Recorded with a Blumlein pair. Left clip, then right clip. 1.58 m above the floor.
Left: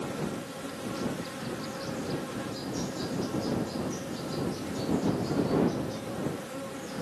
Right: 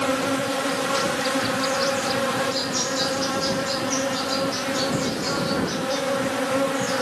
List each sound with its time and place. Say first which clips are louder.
0.0 s an insect: right 13 dB; 35° right